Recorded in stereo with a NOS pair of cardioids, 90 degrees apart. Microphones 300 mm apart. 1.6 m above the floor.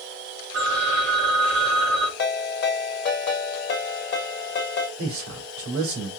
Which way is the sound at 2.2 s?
40° left.